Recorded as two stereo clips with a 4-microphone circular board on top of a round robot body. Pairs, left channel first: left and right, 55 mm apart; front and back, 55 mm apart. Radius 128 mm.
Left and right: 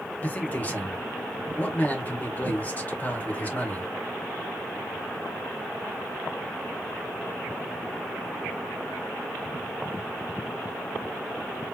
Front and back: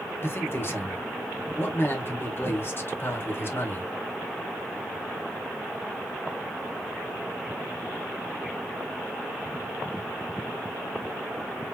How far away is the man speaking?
About 2.5 m.